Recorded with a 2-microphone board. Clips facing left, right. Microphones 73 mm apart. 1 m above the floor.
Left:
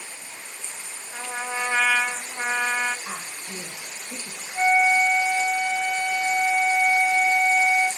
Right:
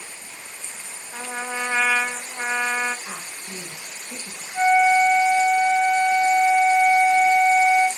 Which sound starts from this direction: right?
A flute, at 4.5 s.